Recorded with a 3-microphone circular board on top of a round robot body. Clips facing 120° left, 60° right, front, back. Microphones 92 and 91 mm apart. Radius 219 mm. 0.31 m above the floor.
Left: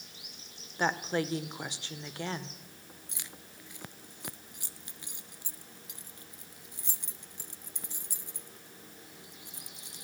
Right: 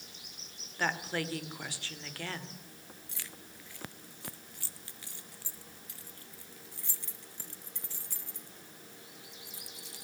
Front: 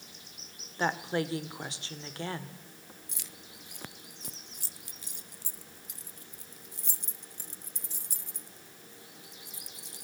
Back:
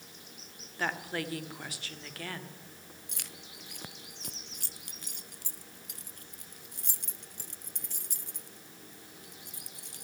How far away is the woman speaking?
About 2 m.